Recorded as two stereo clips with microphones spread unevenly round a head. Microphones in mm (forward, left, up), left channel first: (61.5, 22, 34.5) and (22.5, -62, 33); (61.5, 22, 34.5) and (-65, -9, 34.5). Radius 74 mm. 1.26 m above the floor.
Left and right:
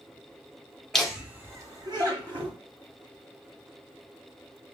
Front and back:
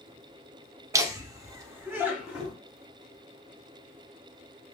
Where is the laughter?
150° left, 0.6 m; by 2.5 s 90° right, 1.0 m.